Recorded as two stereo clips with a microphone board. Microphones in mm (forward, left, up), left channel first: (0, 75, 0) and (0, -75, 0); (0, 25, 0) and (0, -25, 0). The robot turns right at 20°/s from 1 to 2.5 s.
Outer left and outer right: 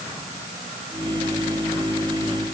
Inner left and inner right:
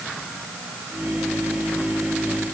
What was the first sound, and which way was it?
Only background noise.